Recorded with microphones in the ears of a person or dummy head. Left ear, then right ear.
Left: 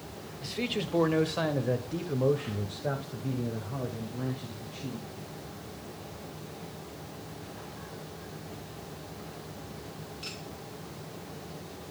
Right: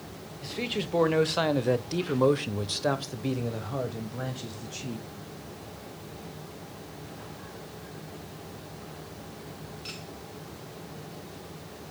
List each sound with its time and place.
0.4 s a man speaking: 5° left (ahead or behind), 1.1 m; by 5.1 s 80° right, 1.9 m